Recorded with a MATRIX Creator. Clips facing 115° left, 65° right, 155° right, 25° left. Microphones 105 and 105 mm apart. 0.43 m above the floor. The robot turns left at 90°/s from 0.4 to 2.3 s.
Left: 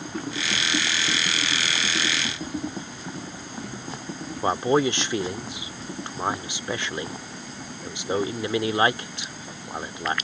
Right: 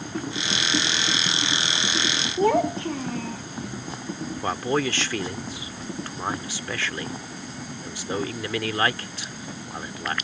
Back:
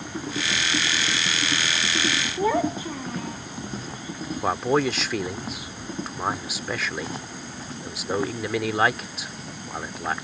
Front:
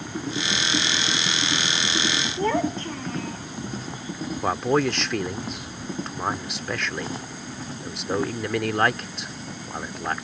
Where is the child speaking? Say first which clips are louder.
Right 11 dB, back 1 dB; 75° right.